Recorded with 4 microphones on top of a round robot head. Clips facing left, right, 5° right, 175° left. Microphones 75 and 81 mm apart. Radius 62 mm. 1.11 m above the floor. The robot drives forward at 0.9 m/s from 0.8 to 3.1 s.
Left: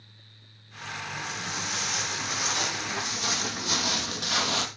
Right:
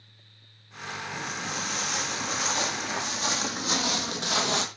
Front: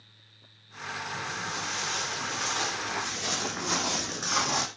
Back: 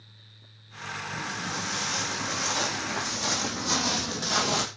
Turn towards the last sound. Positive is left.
turn(degrees=-145)